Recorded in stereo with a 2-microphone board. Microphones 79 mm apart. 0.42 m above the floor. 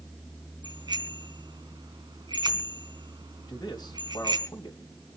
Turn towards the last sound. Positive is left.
turn(degrees=60)  # may be behind; listen again after turning